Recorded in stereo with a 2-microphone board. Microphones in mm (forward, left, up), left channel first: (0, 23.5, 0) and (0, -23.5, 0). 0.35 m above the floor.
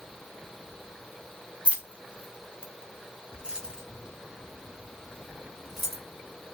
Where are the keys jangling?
25° right (ahead or behind), 0.9 m; by 6.0 s 5° right (ahead or behind), 2.5 m.